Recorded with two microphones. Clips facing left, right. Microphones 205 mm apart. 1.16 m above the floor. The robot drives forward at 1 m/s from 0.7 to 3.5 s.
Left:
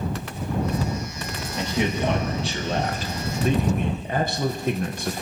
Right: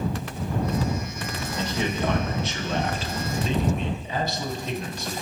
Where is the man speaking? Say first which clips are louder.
Left 3 dB; 20° left (ahead or behind), 2.5 m; by 5.2 s 50° left (ahead or behind), 1.0 m.